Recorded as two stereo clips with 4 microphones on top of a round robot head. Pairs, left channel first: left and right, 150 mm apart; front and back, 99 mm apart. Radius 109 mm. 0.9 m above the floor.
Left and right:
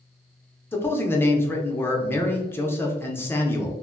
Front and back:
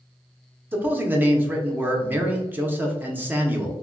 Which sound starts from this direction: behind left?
A man speaking, at 0.7 s.